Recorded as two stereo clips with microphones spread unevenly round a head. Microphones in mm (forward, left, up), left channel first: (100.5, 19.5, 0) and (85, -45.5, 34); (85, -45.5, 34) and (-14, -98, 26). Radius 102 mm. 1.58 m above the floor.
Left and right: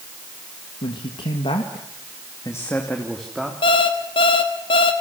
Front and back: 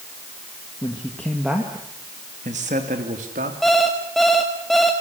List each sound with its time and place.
0.8 s a man speaking: 95° left, 2.0 m; by 3.5 s 175° left, 3 m
3.6 s an alarm clock: 115° left, 1.5 m